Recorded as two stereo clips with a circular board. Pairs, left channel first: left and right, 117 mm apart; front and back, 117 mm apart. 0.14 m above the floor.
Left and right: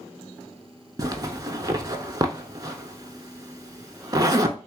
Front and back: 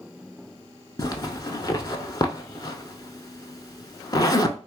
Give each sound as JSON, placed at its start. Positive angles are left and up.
{"t": 1.0, "sound": "a zipper", "azimuth_deg": -45, "distance_m": 0.5}